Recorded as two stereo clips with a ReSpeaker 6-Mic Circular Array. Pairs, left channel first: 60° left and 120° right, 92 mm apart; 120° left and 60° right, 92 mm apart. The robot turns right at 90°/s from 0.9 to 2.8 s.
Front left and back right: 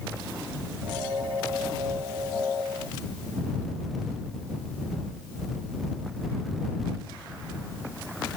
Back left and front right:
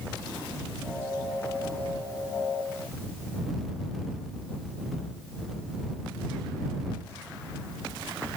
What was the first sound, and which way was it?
Only background noise.